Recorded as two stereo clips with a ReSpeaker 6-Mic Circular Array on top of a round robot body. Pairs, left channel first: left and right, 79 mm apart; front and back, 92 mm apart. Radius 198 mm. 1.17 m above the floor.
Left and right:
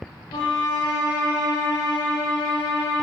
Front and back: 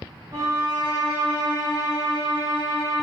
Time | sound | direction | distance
0.3 | a violin | 125° left | 0.8 m